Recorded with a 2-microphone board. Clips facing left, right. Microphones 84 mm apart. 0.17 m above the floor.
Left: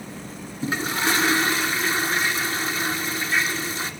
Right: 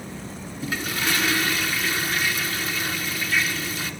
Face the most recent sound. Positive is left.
turn(degrees=30)  # may be behind; listen again after turning